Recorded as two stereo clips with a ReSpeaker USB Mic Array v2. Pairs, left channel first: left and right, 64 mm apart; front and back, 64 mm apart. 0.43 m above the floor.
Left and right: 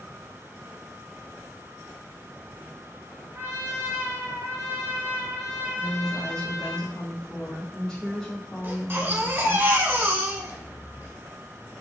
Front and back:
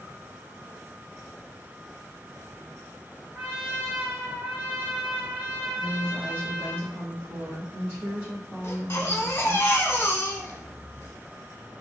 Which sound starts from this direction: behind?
A woman speaking, at 5.8 s.